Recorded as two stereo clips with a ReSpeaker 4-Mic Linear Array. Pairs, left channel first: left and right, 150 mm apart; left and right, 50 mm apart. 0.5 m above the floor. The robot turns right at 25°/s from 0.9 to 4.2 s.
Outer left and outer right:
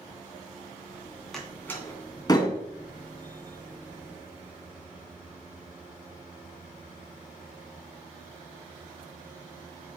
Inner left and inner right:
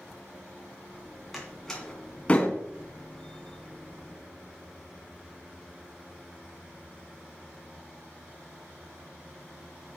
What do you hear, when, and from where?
1.3 s a door slam: 5° left (ahead or behind), 2.5 m; by 2.5 s 35° left (ahead or behind), 2.5 m